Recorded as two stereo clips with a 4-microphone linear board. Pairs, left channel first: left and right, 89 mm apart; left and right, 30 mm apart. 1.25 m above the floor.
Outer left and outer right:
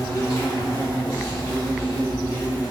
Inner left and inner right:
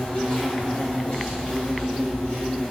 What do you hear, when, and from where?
0.0 s an insect: 40° left (ahead or behind), 1.0 m